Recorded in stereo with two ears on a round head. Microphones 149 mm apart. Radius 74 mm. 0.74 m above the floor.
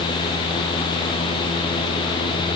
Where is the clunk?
No clunk in this recording.